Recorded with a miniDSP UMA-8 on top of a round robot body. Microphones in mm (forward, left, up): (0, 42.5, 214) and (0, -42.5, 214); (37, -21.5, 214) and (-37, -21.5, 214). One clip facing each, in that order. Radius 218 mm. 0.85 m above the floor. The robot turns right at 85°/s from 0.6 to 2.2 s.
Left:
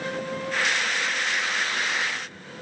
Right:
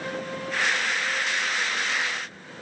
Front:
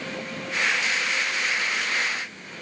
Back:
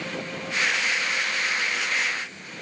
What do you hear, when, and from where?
Only background noise.